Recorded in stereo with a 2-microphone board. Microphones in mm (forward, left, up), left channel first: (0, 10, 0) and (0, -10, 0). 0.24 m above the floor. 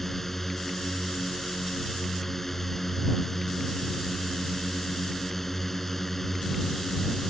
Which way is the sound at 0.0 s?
5° left (ahead or behind).